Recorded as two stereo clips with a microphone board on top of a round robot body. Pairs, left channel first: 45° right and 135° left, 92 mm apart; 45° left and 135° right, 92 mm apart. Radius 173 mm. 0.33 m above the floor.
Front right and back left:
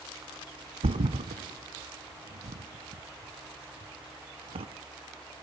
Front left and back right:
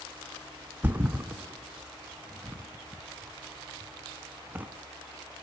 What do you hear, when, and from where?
0.8 s a thud: 150° left, 1.1 m